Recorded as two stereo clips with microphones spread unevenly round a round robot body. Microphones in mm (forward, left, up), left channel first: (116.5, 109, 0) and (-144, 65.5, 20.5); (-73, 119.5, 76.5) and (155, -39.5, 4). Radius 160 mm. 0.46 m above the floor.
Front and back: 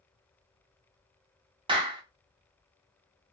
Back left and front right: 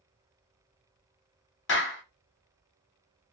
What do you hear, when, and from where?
1.7 s a clap: 135° left, 0.8 m